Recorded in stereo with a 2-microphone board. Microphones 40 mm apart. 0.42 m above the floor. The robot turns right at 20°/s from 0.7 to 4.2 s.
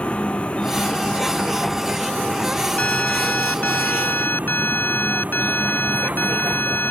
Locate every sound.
0.0 s a vehicle: 150° left; by 6.9 s 140° right
2.8 s an alarm: 35° left (ahead or behind); by 6.9 s 60° left (ahead or behind)